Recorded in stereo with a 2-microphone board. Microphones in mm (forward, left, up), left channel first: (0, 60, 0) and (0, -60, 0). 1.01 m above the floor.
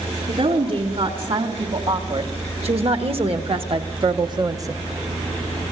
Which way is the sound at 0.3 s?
55° right (ahead or behind).